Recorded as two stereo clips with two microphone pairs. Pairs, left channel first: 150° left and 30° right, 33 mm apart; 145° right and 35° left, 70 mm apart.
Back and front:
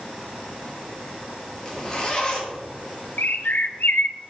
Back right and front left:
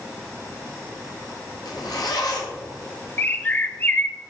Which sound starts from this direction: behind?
A bird, at 3.2 s.